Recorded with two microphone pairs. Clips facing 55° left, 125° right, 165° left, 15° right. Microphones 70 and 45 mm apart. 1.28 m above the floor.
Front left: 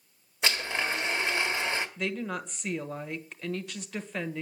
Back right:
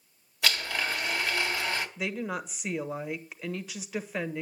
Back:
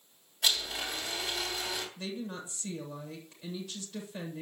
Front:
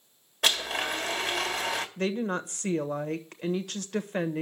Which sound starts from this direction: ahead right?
A woman speaking, at 2.0 s.